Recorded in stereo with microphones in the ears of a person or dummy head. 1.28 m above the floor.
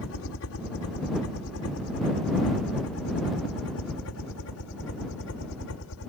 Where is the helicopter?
70° left (ahead or behind).